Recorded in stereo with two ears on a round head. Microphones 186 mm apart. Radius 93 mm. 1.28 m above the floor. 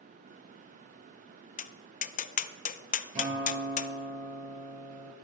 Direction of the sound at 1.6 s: 35° left (ahead or behind).